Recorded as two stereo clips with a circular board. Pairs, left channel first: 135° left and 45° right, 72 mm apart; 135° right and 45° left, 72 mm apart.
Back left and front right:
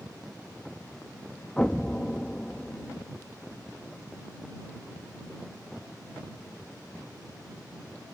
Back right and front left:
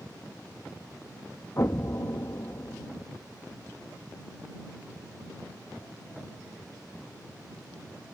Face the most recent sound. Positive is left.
turn(degrees=-160)